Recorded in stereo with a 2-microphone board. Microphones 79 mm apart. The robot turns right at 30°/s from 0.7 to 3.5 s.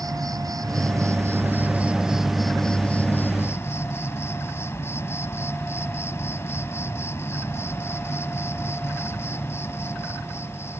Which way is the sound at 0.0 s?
50° right.